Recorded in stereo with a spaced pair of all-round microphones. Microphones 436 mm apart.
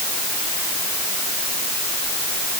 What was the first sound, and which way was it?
Only background noise.